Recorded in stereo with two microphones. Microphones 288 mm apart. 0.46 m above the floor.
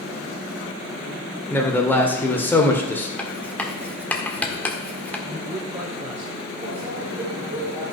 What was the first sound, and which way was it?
A man speaking, 5° left (ahead or behind).